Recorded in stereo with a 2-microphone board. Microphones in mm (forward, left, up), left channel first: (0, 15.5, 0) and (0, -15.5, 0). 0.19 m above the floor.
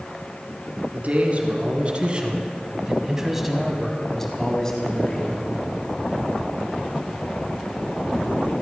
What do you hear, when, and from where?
0.9 s a man speaking: 50° right (ahead or behind), 2.5 m; by 5.4 s 30° left (ahead or behind), 2.0 m